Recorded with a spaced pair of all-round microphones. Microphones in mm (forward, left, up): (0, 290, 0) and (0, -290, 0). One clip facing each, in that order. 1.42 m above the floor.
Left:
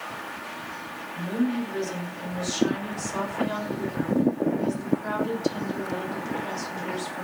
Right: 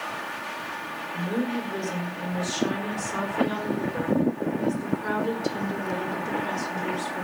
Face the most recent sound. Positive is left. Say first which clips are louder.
# left 2 dB
turn(degrees=-70)  # may be behind; listen again after turning